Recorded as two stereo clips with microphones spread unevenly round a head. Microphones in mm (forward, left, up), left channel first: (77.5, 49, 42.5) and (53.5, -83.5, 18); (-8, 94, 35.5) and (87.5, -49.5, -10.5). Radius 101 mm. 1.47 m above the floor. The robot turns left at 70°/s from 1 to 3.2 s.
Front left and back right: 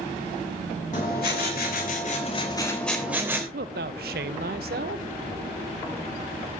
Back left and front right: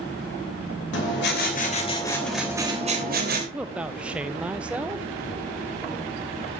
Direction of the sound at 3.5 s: 145° right.